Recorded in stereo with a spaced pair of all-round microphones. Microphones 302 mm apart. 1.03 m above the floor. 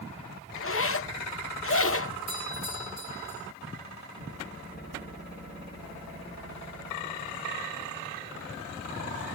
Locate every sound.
0.6 s a zipper: 45° left (ahead or behind), 0.6 m
2.3 s a doorbell: 30° right (ahead or behind), 7 m